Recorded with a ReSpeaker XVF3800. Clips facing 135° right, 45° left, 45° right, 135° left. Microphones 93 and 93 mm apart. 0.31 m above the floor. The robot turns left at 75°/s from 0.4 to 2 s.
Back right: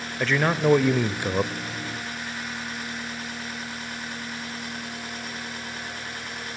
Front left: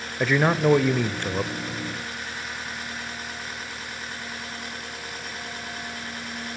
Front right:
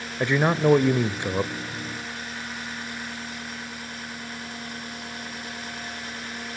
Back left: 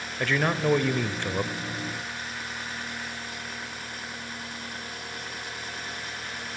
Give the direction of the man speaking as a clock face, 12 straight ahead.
1 o'clock.